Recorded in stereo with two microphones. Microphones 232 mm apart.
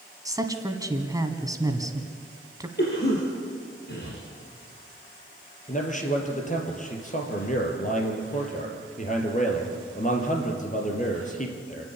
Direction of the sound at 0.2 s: 15° right (ahead or behind).